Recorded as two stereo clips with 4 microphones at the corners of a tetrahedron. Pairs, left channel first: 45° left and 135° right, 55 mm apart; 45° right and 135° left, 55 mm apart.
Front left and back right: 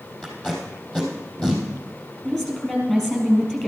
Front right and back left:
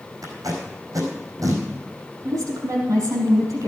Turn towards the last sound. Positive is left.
turn(degrees=125)